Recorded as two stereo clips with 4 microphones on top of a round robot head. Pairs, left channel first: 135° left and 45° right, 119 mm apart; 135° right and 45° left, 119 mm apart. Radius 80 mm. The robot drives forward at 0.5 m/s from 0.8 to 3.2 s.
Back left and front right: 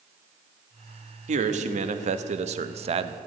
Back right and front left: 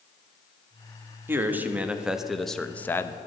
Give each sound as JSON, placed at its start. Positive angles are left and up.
{"t": 1.3, "sound": "a man speaking", "azimuth_deg": -30, "distance_m": 1.3}